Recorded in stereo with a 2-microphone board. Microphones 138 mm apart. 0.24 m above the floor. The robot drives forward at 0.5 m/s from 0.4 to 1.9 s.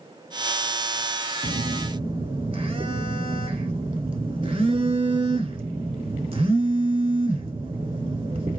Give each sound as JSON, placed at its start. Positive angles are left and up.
{"t": 1.4, "sound": "a phone buzzing", "side_deg": -60, "distance_m": 0.6}